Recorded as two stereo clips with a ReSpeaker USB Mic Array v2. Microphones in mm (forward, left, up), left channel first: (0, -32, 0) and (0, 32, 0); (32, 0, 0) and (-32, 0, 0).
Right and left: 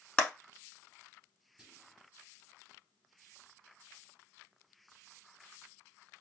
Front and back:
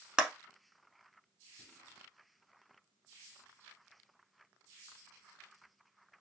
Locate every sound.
0.2 s a clap: 130° right, 0.8 m
1.6 s whispering: 25° left, 1.8 m